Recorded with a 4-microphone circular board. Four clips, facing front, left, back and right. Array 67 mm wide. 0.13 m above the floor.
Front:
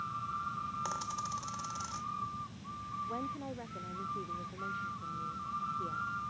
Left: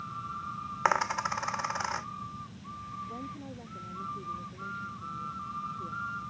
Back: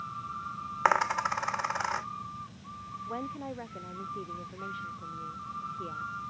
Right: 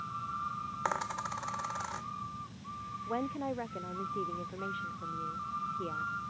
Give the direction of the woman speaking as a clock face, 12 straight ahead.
4 o'clock.